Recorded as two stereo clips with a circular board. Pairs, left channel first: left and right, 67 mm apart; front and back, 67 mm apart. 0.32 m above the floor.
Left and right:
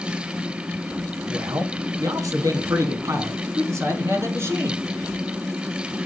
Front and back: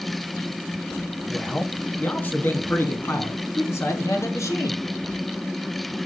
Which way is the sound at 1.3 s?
80° right.